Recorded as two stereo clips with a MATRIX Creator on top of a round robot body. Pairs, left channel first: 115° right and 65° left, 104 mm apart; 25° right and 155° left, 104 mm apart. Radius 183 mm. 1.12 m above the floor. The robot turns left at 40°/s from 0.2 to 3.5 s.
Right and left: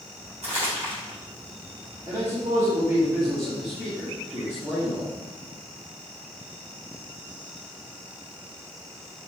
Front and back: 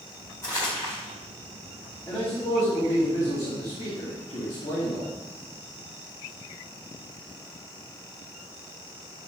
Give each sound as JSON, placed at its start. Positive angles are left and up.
{"t": 0.4, "sound": "crumpling", "azimuth_deg": 45, "distance_m": 2.0}
{"t": 2.1, "sound": "a man speaking", "azimuth_deg": 25, "distance_m": 2.0}